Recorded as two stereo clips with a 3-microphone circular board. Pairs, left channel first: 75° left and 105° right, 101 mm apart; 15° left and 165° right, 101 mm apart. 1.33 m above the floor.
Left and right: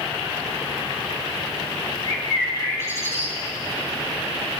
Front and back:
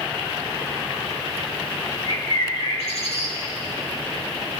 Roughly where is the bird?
Ahead.